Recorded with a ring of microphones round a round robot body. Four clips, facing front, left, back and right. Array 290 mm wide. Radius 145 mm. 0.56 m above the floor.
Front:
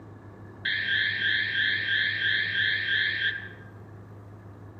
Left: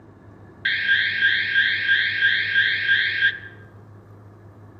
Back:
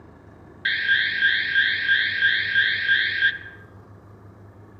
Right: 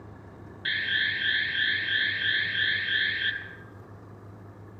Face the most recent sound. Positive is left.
turn(degrees=125)